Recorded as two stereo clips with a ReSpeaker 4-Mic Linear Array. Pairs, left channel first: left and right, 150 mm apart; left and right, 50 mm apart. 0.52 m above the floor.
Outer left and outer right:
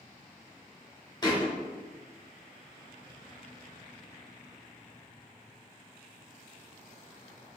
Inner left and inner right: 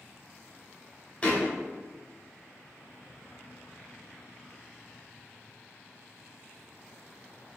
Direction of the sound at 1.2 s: 25° left (ahead or behind).